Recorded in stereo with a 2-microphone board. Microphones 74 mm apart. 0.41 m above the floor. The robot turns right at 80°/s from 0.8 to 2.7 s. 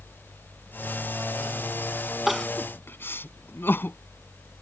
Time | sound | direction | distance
2.3 | crying | centre (ahead or behind) | ?